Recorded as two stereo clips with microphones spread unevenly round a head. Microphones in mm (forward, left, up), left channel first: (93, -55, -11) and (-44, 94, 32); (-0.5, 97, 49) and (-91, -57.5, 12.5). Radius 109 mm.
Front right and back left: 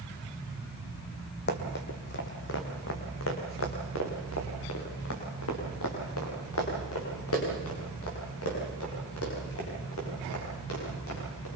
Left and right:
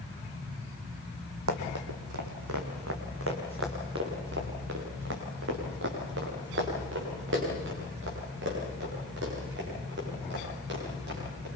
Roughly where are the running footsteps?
Right.